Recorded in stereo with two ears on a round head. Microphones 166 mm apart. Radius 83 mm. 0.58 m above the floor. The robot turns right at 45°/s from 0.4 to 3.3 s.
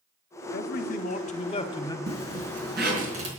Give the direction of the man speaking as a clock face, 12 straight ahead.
9 o'clock.